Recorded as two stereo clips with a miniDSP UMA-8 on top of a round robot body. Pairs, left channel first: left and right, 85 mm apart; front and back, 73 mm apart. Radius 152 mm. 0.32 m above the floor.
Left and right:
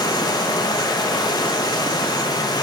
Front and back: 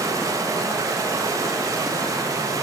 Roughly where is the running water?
Behind left.